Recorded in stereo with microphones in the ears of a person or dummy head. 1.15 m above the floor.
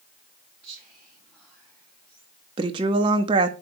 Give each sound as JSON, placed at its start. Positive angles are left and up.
{"t": 0.6, "sound": "whispering", "side_deg": -5, "distance_m": 3.0}
{"t": 2.6, "sound": "a woman speaking", "side_deg": -20, "distance_m": 0.6}